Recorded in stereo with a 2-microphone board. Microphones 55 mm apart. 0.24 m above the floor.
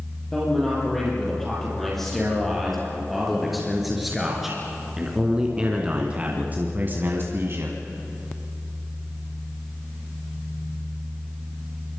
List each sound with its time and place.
0.3 s a man speaking: 10° left (ahead or behind), 7 m; by 7.8 s 50° right (ahead or behind), 1.8 m